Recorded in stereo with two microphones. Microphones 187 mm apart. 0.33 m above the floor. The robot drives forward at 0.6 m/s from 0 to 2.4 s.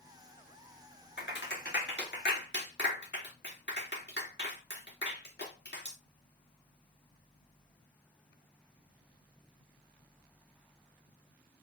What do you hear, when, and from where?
1.2 s a clap: 75° left (ahead or behind), 3.5 m